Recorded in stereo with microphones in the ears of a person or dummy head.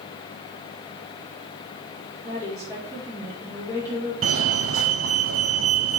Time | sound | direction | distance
2.2 | a woman speaking | 15° right (ahead or behind) | 4.5 m
4.2 | a fire alarm | 70° right (ahead or behind) | 0.8 m